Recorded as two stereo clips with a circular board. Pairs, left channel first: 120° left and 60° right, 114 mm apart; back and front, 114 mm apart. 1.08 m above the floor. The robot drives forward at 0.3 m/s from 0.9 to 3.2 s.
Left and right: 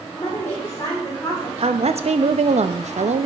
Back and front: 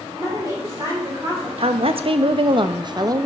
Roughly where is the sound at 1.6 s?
Ahead right.